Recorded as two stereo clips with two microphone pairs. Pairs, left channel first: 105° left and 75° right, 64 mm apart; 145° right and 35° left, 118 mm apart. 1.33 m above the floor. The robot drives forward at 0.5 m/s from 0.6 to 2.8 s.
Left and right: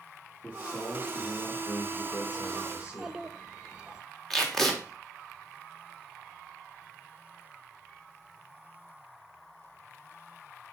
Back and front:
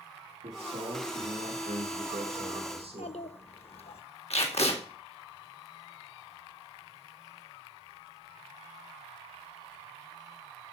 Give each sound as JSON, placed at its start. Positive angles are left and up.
{"t": 0.4, "sound": "a man speaking", "azimuth_deg": 40, "distance_m": 2.5}
{"t": 2.8, "sound": "a child speaking", "azimuth_deg": -145, "distance_m": 1.0}
{"t": 4.3, "sound": "tape being pulled", "azimuth_deg": -170, "distance_m": 2.0}